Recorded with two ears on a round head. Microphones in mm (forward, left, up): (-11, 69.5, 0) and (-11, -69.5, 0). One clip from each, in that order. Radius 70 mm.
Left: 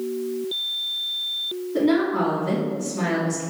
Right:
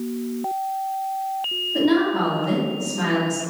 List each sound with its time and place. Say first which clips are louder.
1.7 s a woman speaking: even; centre (ahead or behind), 1.6 m